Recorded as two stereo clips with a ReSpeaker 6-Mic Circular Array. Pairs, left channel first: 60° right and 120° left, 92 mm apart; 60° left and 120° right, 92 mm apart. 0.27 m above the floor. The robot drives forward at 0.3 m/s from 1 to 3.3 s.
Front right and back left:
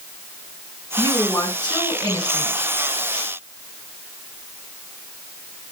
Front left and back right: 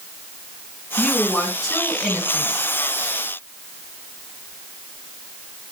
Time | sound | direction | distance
1.0 | a woman speaking | 25° right | 2 m